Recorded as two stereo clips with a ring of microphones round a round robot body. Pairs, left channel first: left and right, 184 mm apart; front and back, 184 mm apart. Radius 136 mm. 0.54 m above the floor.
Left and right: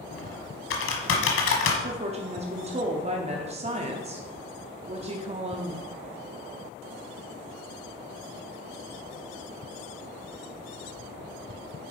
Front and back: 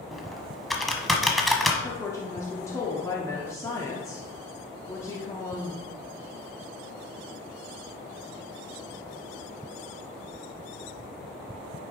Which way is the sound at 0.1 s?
90° left.